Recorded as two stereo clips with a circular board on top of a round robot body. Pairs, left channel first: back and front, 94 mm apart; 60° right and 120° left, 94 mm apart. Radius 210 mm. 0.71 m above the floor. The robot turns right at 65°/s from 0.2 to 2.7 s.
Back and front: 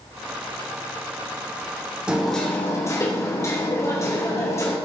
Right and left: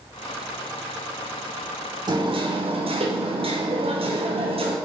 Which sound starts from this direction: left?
Hammering, at 2.1 s.